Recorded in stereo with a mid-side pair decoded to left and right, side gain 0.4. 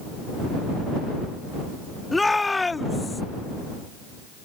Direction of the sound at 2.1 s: 20° left.